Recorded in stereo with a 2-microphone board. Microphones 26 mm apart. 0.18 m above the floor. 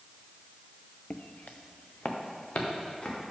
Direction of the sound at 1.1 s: 50° left (ahead or behind).